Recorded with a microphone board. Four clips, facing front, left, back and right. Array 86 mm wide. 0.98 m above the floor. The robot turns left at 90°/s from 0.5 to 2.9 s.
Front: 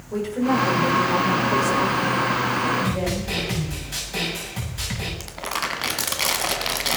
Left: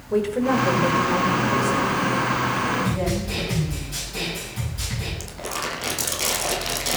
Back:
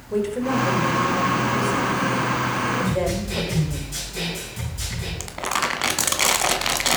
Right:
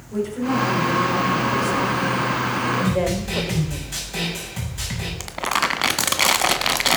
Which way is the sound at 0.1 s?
100° left.